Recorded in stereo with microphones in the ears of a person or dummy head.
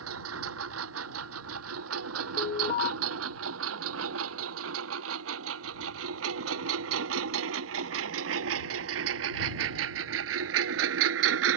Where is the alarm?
25° left (ahead or behind).